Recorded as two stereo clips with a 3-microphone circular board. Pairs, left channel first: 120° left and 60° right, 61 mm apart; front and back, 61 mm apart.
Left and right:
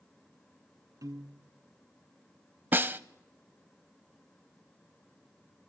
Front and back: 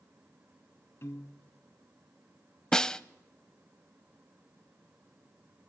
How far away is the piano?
About 0.8 m.